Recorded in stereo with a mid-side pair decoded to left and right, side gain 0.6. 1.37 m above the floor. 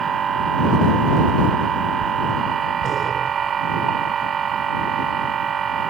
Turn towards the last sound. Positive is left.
turn(degrees=-40)